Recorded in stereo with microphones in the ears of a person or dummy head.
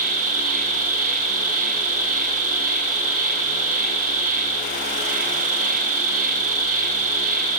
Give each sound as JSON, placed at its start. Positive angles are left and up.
{"t": 0.0, "sound": "an insect", "side_deg": -45, "distance_m": 0.9}